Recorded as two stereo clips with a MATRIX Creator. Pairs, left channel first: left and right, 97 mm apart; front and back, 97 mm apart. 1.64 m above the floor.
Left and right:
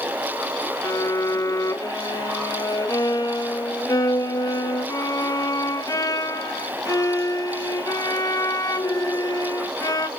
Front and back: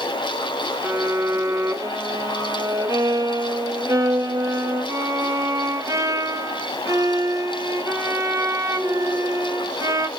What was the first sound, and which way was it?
A violin, 130° left.